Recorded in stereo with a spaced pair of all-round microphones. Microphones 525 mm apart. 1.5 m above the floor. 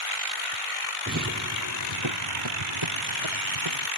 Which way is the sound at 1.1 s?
25° right (ahead or behind).